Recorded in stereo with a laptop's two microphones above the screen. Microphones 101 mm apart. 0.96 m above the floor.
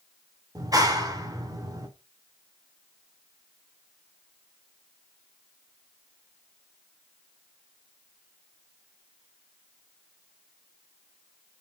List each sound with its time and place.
0.6 s a clap: 40° right (ahead or behind), 2.5 m